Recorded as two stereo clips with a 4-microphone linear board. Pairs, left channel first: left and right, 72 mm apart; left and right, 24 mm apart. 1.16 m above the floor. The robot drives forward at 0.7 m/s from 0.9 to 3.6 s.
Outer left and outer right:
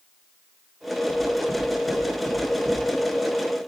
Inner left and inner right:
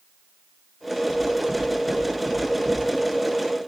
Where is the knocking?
65° left (ahead or behind), 4 m; by 2.8 s 50° left (ahead or behind), 5 m.